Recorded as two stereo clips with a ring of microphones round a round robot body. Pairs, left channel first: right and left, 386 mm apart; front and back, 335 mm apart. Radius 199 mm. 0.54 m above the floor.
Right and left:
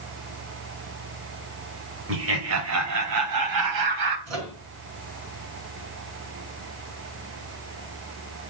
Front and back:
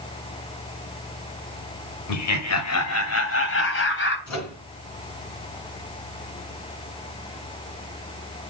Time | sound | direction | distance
2.1 | laughter | 35° left | 2.5 m
4.3 | a microwave | 40° left | 4.5 m